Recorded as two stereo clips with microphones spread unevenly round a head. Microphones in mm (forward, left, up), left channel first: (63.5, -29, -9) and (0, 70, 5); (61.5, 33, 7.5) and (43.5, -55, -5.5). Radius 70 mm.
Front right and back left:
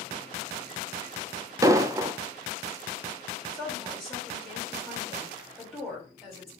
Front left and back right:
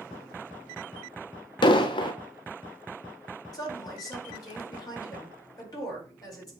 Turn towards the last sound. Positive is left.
turn(degrees=35)